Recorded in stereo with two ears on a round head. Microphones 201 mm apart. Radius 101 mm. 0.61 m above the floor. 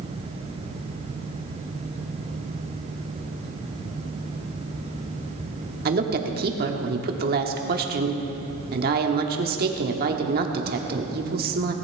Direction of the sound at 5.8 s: 45° right (ahead or behind).